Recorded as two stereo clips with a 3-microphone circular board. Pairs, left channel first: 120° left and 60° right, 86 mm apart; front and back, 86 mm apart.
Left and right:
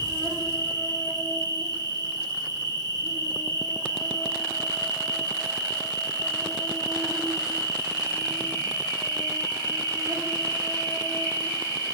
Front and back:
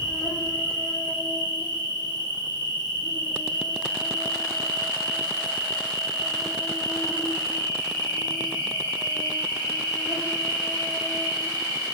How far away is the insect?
About 2 m.